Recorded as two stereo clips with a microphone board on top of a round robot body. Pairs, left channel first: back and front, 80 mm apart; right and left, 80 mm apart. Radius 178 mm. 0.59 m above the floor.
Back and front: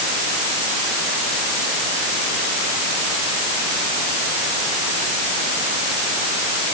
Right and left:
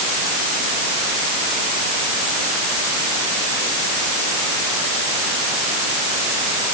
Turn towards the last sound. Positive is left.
No sound to turn to.